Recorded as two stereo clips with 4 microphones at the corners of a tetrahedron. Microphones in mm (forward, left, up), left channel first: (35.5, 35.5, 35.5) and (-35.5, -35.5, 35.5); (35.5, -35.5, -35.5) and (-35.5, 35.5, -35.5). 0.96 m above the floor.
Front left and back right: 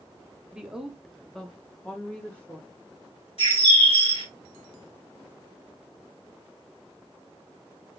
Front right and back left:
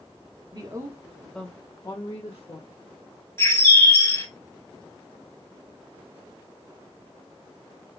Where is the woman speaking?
145° left, 1.0 m; by 2.7 s 30° right, 1.6 m.